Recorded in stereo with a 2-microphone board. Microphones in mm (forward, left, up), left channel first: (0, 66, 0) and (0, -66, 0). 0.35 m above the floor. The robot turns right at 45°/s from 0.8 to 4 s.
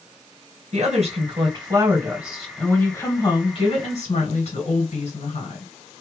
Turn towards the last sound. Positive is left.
turn(degrees=65)